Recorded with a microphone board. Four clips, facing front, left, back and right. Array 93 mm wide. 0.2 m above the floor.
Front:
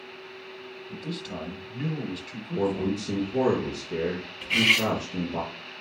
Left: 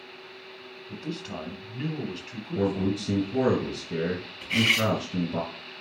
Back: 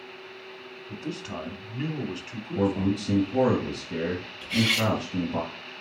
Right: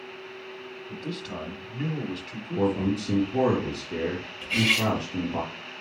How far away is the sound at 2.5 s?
About 3.5 m.